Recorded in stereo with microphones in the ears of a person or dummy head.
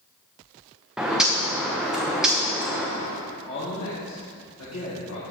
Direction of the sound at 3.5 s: 85° left.